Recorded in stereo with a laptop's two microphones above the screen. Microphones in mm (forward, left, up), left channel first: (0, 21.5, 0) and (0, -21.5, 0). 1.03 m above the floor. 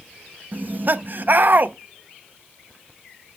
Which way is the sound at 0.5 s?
45° right (ahead or behind).